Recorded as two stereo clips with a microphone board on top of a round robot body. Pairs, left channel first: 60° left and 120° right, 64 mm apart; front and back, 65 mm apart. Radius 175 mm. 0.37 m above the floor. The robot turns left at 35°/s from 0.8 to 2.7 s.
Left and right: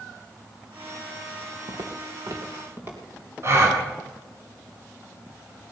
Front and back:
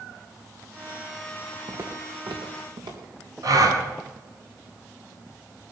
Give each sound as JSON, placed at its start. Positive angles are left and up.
{"t": 1.7, "sound": "footsteps", "azimuth_deg": -130, "distance_m": 1.9}
{"t": 3.4, "sound": "a gasp", "azimuth_deg": -160, "distance_m": 3.5}